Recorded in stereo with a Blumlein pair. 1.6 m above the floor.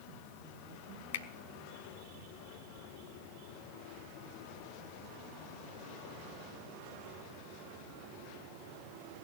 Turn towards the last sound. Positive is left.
turn(degrees=55)